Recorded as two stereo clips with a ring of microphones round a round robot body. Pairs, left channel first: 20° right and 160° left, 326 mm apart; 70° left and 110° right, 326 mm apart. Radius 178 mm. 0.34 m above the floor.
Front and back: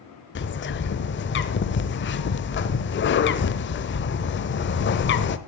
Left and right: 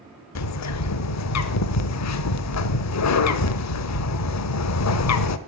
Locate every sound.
0.3 s a bird: 30° left, 0.8 m